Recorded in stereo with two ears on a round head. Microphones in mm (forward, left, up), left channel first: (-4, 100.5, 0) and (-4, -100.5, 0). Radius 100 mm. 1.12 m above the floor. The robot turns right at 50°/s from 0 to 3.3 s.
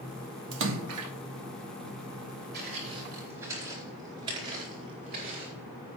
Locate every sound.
0.5 s a splash: 125° right, 1.1 m; by 1.1 s 95° right, 1.1 m
2.5 s footsteps: 40° right (ahead or behind), 4.5 m; by 5.5 s 35° right (ahead or behind), 4.5 m